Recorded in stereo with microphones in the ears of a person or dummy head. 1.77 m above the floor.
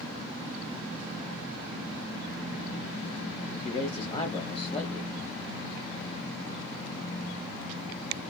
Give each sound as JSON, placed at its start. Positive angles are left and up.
{"t": 3.6, "sound": "a man speaking", "side_deg": 25, "distance_m": 0.9}